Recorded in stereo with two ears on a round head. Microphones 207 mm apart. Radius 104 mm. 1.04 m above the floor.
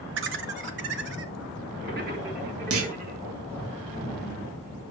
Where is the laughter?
55° right (ahead or behind), 1.3 m; by 3.2 s 40° right (ahead or behind), 3.5 m.